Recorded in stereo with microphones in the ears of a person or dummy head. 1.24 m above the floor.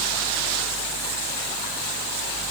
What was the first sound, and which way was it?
Only background noise.